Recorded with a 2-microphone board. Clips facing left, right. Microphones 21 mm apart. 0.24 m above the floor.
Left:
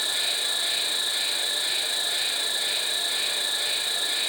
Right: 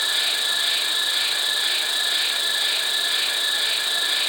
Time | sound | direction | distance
0.0 | an insect | 65° right (ahead or behind) | 3 m